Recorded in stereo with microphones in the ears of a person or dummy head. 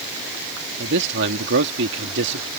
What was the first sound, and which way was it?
A man speaking, 65° right (ahead or behind).